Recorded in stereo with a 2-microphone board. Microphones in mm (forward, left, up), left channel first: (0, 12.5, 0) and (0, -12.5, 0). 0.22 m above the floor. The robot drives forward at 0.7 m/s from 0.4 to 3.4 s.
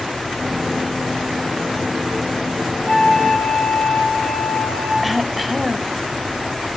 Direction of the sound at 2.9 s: 60° left (ahead or behind).